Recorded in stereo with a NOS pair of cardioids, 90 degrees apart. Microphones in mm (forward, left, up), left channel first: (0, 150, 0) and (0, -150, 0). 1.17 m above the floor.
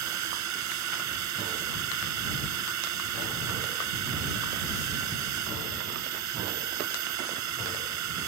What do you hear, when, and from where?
0.0 s a drone: 65° right